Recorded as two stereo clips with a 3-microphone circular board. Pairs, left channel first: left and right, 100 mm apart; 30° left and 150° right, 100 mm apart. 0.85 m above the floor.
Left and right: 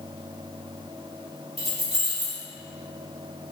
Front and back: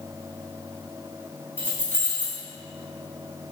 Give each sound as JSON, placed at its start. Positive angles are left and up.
{"t": 1.6, "sound": "keys jangling", "azimuth_deg": -80, "distance_m": 1.0}